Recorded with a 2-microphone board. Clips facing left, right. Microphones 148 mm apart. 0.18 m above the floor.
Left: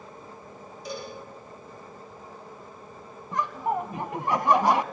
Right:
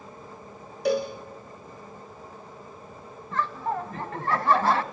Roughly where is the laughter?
Centre.